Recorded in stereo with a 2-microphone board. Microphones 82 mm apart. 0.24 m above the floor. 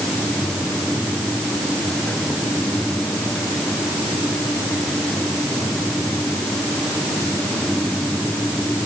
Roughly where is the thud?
No thud in this recording.